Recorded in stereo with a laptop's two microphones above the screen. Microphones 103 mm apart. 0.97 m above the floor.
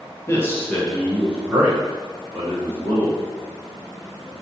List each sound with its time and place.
0.3 s a man speaking: 25° left (ahead or behind), 0.9 m; by 3.2 s 45° right (ahead or behind), 1.5 m